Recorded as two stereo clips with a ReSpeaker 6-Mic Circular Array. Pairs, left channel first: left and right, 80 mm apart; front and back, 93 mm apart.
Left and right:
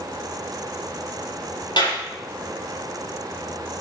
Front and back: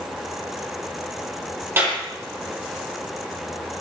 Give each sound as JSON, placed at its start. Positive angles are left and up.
{"t": 1.8, "sound": "a clap", "azimuth_deg": 115, "distance_m": 7.5}